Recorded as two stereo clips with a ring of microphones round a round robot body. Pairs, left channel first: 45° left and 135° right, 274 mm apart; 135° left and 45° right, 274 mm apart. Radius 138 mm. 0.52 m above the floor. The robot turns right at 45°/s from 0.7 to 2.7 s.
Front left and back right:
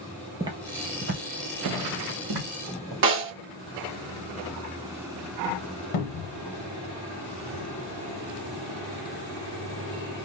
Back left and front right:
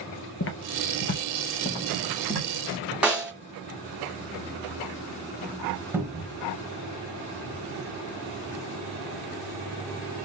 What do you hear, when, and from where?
0.4 s footsteps: 155° left, 0.6 m; by 2.9 s 110° right, 1.7 m
3.0 s a snare drum: 130° right, 1.6 m
5.9 s a cupboard door: 40° left, 0.8 m